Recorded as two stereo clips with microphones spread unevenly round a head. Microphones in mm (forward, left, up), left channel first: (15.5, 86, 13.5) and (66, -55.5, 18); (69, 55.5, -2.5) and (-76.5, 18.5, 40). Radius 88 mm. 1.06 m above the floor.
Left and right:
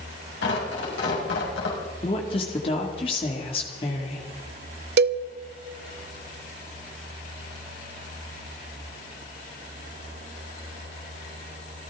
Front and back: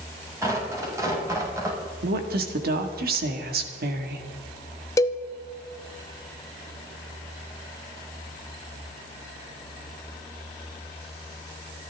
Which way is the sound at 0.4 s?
125° left.